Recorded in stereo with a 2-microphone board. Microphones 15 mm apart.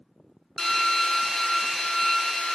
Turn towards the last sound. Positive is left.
turn(degrees=30)  # may be behind; listen again after turning